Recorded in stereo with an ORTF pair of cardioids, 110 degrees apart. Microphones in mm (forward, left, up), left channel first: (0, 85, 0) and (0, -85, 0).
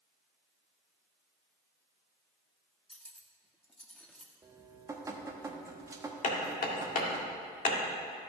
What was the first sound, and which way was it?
Cutlery clinking, 5° left.